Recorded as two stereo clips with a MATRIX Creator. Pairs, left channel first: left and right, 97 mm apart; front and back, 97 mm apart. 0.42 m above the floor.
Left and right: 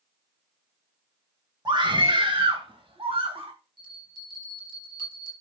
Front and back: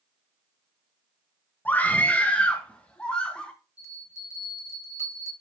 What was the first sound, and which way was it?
A scream, 65° right.